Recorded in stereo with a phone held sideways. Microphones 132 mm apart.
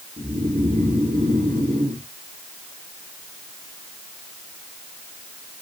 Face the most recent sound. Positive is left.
turn(degrees=-75)  # may be behind; listen again after turning